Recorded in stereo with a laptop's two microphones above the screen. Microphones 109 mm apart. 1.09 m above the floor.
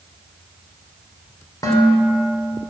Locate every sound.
1.6 s dishes clattering: 35° left (ahead or behind), 2.5 m